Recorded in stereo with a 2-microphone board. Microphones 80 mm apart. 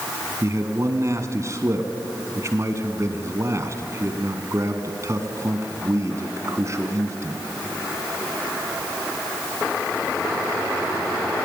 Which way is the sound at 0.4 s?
40° right (ahead or behind).